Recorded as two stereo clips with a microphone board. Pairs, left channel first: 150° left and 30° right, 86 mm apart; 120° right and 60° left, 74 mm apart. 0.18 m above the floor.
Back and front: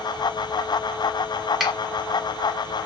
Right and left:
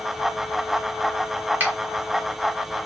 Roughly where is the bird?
No bird in this recording.